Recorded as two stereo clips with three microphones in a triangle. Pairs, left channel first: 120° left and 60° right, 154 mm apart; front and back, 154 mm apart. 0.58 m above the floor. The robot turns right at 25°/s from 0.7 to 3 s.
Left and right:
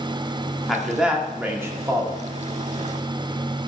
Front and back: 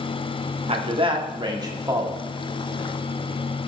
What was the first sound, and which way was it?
A man speaking, 150° right.